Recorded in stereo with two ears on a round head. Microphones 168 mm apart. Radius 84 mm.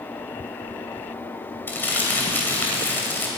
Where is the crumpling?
10° left (ahead or behind), 2.5 m.